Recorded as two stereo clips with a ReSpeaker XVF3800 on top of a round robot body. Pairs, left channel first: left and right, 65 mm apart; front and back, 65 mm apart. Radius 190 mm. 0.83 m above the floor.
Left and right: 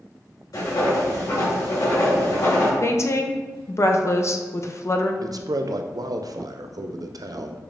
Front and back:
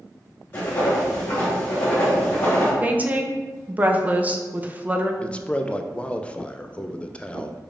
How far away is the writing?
About 1.8 m.